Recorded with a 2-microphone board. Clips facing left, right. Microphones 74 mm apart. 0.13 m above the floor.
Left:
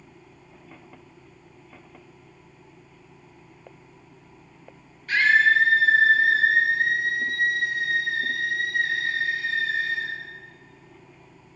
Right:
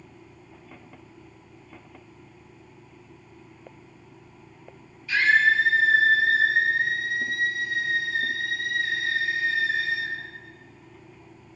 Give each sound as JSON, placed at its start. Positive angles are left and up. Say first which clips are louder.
{"t": 5.1, "sound": "a scream", "louder": "left 1 dB", "side_deg": 50, "distance_m": 3.0}